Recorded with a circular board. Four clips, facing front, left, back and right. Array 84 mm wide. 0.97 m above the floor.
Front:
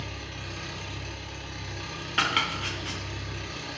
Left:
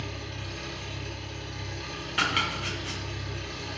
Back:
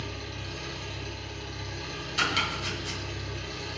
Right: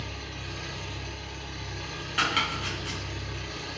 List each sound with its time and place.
0.0 s an engine running: 20° right, 1.1 m
2.2 s chopping: 5° left, 0.6 m